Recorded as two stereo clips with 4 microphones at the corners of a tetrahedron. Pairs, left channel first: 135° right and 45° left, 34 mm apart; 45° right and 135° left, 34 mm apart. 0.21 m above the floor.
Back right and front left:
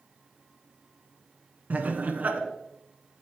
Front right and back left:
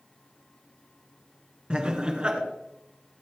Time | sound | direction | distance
1.7 | laughter | 75° left | 2 m